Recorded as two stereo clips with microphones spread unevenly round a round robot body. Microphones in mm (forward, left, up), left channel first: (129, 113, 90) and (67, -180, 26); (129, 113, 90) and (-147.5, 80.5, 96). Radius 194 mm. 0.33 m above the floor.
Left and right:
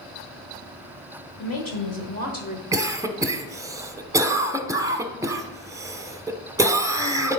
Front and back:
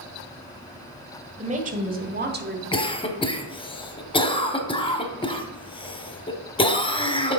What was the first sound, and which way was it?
A woman speaking, 125° left.